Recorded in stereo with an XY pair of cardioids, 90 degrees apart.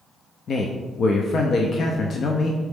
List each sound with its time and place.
0.5 s a man speaking: 55° left, 0.5 m